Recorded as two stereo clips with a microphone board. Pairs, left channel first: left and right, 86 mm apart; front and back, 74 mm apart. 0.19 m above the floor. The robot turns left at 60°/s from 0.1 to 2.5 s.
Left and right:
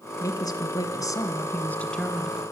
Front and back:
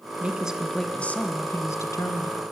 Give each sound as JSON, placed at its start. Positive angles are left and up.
{"t": 0.2, "sound": "a woman speaking", "azimuth_deg": 115, "distance_m": 1.7}